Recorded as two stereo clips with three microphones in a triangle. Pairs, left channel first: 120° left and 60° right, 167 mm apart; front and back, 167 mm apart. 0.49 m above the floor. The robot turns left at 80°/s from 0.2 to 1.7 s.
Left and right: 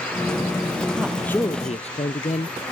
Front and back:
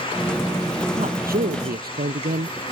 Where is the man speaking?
135° right; by 2.6 s 165° left.